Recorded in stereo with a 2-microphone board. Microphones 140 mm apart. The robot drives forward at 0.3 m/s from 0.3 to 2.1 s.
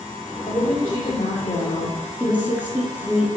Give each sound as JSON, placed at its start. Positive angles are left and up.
{"t": 0.5, "sound": "a woman speaking", "side_deg": 45, "distance_m": 2.5}
{"t": 2.2, "sound": "a woman speaking", "side_deg": -10, "distance_m": 1.3}